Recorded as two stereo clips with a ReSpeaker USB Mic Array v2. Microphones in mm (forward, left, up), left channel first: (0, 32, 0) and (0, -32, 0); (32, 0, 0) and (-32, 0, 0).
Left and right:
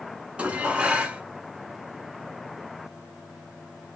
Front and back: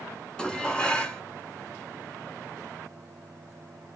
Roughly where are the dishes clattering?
Ahead right.